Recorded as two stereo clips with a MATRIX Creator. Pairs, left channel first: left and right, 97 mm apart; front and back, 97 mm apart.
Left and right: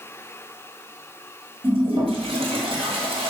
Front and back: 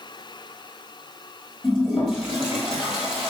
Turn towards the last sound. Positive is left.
turn(degrees=-95)